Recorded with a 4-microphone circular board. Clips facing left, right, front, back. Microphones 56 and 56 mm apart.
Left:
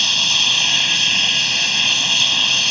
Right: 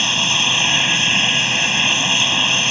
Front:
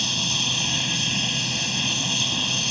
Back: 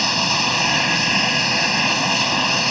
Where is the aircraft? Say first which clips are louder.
Right 1 dB, back 8 dB; 155° right.